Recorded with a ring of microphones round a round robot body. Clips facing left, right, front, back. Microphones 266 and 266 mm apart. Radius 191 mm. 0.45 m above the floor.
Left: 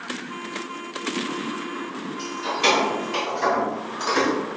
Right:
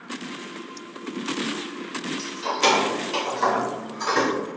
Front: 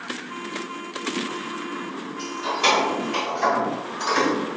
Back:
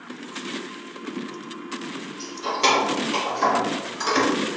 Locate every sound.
2.2 s keys jangling: 100° right, 1.3 m; by 4.3 s 175° right, 1.5 m